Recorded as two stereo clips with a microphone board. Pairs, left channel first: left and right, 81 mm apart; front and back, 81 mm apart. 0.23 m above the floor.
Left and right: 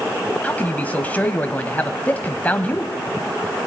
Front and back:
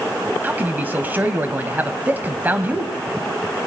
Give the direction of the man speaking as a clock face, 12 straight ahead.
7 o'clock.